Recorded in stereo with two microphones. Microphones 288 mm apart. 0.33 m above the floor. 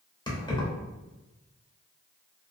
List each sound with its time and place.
0.3 s keys jangling: 15° left (ahead or behind), 0.7 m